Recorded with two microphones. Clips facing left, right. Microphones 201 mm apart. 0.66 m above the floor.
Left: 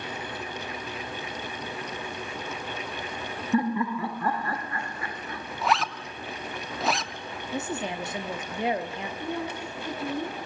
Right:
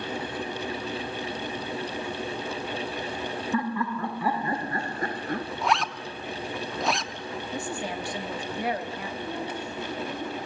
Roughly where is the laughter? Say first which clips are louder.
Left 4 dB; left.